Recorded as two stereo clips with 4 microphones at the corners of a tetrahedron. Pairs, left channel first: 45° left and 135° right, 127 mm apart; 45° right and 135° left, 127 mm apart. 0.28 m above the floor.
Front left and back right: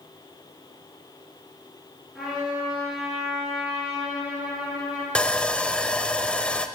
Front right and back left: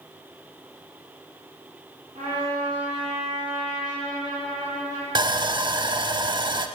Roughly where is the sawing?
Behind left.